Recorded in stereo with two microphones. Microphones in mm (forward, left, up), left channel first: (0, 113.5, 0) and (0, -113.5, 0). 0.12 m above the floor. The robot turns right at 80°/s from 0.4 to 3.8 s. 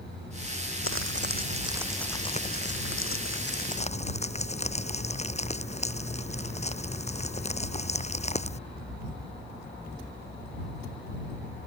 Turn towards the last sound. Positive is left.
turn(degrees=150)